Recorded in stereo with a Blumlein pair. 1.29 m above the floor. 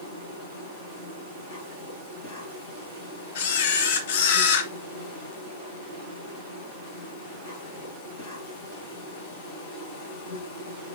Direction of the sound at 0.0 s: 50° left.